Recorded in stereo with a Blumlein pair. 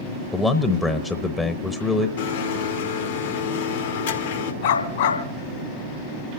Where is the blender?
60° left, 1.4 m.